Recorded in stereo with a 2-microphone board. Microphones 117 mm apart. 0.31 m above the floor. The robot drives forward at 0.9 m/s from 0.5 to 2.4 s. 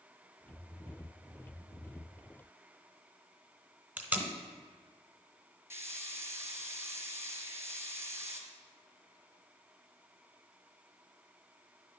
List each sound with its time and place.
4.0 s tape being pulled: 15° right (ahead or behind), 1.1 m
5.7 s a hiss: 20° right (ahead or behind), 1.4 m